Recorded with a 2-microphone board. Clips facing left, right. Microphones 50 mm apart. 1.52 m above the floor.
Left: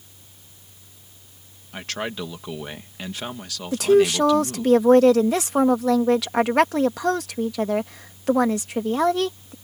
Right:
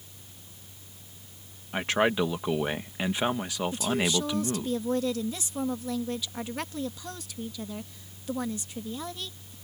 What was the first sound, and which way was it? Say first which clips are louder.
A man speaking: right 5 dB; 20° right (ahead or behind).